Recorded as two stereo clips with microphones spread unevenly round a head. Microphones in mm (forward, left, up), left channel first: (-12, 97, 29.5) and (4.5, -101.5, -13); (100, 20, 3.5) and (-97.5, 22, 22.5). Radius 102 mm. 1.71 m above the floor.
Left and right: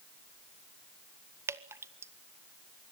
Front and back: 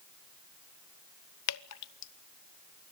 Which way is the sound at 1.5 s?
5° right.